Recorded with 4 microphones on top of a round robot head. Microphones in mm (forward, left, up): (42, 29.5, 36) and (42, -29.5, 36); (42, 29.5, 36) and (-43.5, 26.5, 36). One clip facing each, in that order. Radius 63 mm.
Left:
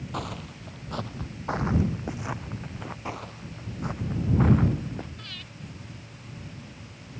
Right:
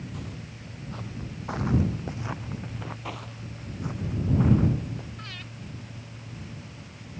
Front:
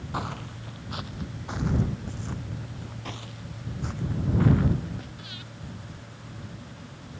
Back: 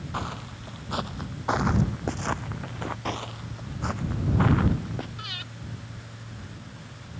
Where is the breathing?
160° right.